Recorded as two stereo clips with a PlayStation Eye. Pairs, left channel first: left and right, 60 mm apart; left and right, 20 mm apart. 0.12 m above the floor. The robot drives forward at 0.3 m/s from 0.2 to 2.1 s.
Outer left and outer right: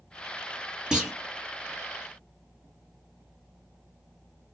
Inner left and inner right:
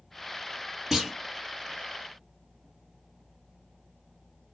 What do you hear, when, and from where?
0.9 s a clunk: 10° right (ahead or behind), 1.4 m